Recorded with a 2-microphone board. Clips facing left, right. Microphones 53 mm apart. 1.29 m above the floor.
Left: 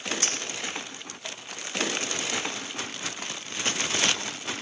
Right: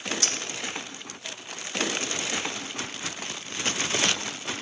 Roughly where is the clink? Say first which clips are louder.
Even; left.